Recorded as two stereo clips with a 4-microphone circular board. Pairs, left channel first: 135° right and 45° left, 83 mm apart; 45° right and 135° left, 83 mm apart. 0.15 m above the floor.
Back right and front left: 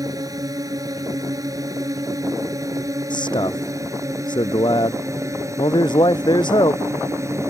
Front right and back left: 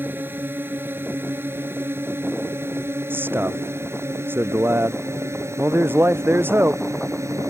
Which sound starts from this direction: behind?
A man speaking, at 3.1 s.